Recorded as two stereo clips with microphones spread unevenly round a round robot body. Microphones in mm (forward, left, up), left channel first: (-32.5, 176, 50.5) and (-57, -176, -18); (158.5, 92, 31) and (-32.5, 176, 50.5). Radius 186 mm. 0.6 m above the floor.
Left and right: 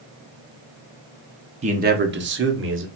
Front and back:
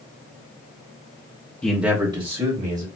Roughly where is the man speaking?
Right.